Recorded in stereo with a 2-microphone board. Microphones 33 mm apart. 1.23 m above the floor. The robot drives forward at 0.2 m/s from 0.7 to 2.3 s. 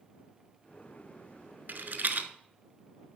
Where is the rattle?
55° right (ahead or behind), 1.0 m; by 2.3 s 50° right (ahead or behind), 1.1 m.